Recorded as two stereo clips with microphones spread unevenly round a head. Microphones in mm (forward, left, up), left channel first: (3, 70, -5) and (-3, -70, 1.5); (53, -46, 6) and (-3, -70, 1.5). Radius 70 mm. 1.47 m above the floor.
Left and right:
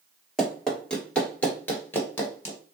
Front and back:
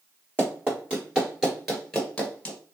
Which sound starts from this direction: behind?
Running footsteps, at 0.4 s.